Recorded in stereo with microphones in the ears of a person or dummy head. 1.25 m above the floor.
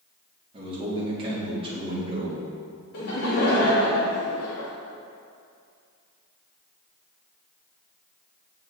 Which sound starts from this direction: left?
Laughter, at 2.9 s.